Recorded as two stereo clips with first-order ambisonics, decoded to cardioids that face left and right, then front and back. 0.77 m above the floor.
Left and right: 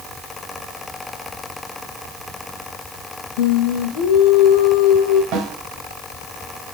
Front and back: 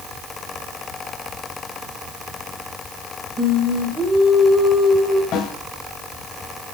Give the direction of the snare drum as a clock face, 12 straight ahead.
2 o'clock.